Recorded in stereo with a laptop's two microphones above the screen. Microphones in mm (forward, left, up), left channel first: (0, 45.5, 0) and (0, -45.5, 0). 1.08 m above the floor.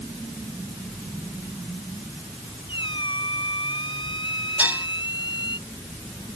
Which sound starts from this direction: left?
A squeak, at 2.7 s.